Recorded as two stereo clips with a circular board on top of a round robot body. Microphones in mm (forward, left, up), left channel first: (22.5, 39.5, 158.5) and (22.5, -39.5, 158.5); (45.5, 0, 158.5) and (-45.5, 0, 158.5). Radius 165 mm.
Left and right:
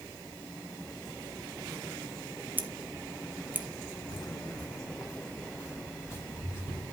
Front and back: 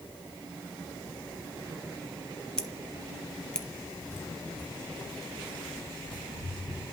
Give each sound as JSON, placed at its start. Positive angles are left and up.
{"t": 2.6, "sound": "scissors", "azimuth_deg": -65, "distance_m": 1.2}
{"t": 4.1, "sound": "footsteps", "azimuth_deg": 65, "distance_m": 0.8}